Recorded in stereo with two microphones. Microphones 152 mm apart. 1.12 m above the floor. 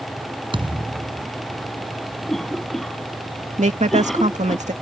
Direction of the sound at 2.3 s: 5° left (ahead or behind).